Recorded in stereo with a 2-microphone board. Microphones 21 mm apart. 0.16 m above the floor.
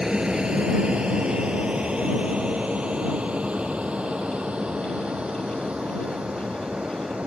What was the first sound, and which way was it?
An aircraft, 40° right (ahead or behind).